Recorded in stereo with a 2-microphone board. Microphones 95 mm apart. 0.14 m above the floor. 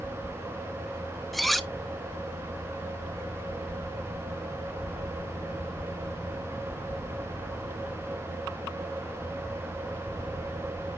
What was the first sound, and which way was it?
Cutlery clinking, centre (ahead or behind).